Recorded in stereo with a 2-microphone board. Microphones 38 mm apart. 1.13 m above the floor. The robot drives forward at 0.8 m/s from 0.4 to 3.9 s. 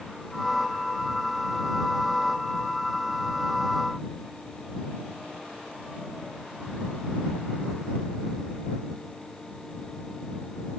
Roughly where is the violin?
No violin in this recording.